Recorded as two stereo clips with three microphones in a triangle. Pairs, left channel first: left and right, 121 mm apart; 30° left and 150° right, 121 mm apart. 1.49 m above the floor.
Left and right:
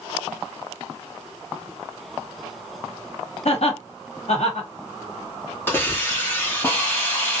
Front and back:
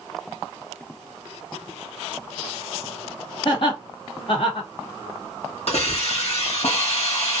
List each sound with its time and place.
3.5 s laughter: 70° left, 1.2 m
5.7 s a hiss: 25° left, 1.2 m